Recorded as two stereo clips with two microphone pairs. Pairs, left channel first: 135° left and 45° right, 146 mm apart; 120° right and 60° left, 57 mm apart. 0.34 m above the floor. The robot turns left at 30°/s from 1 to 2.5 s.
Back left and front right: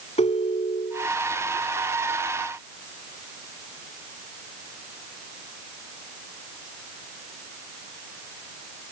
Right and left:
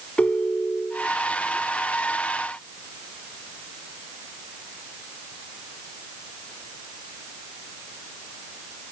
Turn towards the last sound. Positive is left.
turn(degrees=130)